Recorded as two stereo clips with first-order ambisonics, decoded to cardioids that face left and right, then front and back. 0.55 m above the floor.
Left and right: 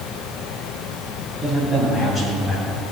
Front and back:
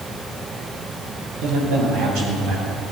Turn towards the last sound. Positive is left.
turn(degrees=155)